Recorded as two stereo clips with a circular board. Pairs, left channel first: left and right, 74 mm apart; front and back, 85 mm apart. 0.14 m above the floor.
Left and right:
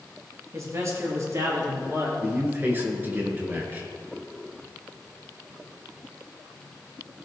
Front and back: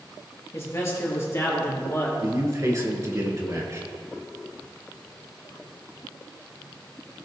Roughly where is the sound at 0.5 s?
Ahead right.